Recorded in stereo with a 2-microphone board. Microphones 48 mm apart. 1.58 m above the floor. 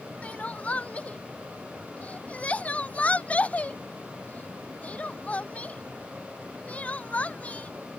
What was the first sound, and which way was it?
Crying, 30° left (ahead or behind).